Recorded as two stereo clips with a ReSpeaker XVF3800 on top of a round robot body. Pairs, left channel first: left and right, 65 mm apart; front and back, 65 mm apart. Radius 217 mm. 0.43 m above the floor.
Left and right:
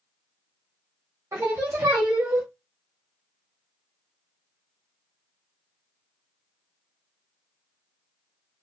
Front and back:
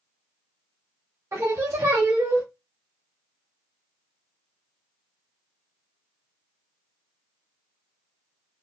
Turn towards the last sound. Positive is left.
turn(degrees=-135)